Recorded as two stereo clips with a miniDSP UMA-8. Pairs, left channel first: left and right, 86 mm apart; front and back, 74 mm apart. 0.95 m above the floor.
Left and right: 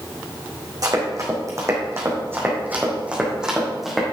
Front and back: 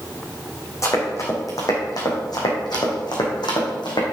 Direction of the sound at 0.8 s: 45° right.